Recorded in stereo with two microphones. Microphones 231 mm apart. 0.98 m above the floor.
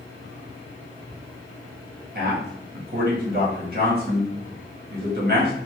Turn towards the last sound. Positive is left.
turn(degrees=-45)  # may be behind; listen again after turning